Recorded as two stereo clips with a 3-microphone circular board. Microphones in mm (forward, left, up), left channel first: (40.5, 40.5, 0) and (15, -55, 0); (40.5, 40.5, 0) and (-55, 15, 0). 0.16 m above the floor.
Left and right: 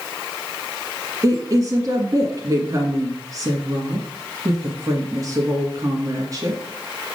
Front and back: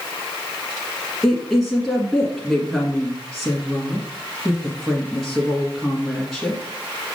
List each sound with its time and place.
1.2 s a woman speaking: 75° right, 1.4 m